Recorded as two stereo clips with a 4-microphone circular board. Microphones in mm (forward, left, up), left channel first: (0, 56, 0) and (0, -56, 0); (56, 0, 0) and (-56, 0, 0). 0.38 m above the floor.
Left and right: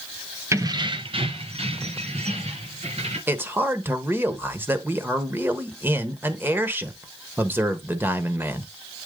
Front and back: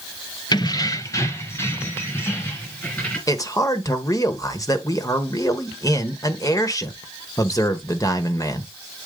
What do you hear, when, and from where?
0.5 s keys jangling: 35° right, 0.7 m; by 3.2 s 70° right, 4 m
3.3 s a man speaking: 30° right, 1.1 m